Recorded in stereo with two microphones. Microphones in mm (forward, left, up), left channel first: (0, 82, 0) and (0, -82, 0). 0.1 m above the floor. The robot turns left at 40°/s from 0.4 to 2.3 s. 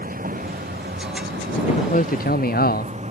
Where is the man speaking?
45° left (ahead or behind); by 3.0 s 70° left (ahead or behind).